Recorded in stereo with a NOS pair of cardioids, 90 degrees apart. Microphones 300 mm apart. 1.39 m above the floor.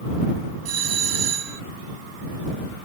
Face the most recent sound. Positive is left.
turn(degrees=-55)